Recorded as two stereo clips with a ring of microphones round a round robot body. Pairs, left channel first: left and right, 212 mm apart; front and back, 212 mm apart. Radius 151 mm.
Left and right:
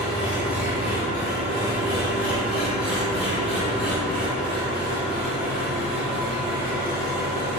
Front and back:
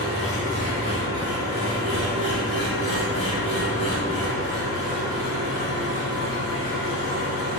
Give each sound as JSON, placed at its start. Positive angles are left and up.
{"t": 0.0, "sound": "an engine running", "azimuth_deg": -5, "distance_m": 1.5}